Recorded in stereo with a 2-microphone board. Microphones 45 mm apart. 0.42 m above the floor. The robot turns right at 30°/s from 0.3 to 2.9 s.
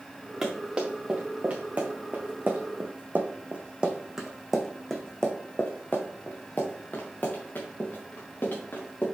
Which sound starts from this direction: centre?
Running footsteps, at 0.4 s.